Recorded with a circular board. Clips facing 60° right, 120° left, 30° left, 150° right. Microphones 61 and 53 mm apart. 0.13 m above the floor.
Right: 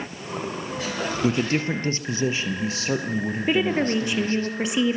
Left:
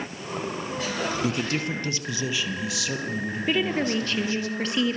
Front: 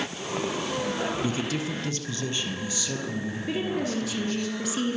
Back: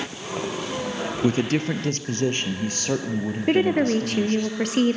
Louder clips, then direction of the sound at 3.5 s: Right 3 dB, back 10 dB; 135° right.